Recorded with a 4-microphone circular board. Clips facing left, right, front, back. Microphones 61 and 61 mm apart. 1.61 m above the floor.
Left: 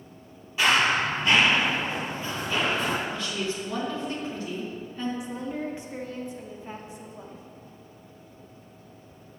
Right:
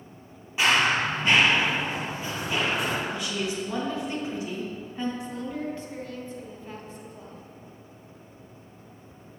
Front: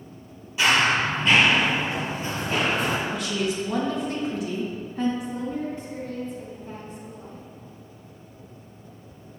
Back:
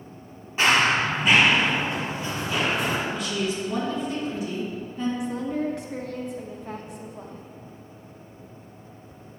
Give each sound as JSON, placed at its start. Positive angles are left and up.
{"t": 0.6, "sound": "running footsteps", "azimuth_deg": -150, "distance_m": 2.0}
{"t": 3.1, "sound": "a woman speaking", "azimuth_deg": -20, "distance_m": 1.8}
{"t": 5.2, "sound": "a woman speaking", "azimuth_deg": 160, "distance_m": 1.0}